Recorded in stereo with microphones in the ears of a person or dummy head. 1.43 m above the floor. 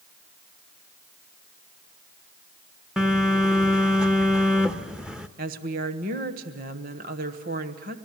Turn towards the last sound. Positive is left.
turn(degrees=-50)  # may be behind; listen again after turning